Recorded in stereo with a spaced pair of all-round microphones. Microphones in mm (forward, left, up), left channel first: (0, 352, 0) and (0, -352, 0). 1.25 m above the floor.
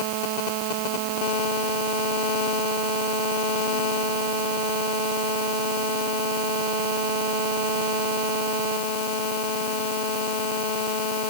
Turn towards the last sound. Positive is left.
No sound to turn to.